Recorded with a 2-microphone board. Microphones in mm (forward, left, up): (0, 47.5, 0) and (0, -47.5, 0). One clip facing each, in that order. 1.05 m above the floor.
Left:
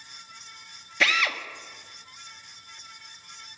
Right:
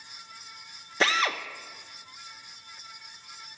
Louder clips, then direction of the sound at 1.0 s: Right 1 dB; 30° right (ahead or behind).